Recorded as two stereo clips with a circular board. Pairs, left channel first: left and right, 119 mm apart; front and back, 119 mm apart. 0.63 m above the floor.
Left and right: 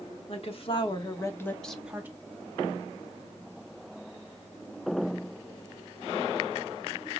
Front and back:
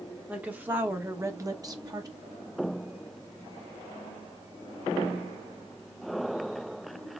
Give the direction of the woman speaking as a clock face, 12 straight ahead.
9 o'clock.